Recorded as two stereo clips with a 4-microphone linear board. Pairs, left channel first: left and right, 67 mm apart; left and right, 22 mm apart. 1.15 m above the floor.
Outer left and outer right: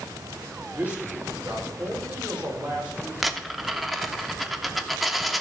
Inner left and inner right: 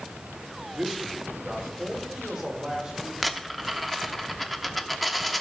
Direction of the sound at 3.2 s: Centre (ahead or behind).